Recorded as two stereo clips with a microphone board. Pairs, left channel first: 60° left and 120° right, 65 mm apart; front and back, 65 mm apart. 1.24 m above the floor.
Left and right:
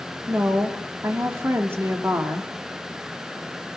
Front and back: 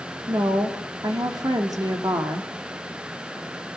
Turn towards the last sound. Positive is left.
turn(degrees=-170)